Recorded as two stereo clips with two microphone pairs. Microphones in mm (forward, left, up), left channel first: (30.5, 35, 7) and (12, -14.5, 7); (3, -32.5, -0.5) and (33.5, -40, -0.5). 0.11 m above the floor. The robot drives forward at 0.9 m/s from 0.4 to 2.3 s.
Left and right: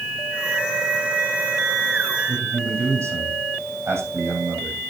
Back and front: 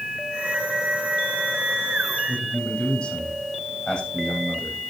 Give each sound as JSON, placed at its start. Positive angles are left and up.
{"t": 2.3, "sound": "a man speaking", "azimuth_deg": -140, "distance_m": 6.0}